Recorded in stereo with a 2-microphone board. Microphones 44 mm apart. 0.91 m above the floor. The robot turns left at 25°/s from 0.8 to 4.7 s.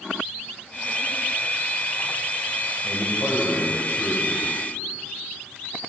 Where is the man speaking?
105° left, 4 m; by 4.4 s 65° left, 4 m.